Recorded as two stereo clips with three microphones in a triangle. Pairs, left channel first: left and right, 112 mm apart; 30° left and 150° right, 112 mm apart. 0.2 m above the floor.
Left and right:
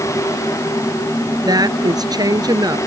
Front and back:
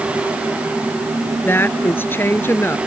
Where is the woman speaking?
40° right.